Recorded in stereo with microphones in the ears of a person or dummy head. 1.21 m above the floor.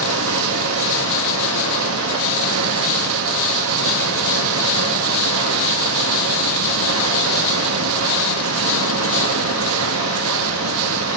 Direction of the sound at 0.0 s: 75° right (ahead or behind).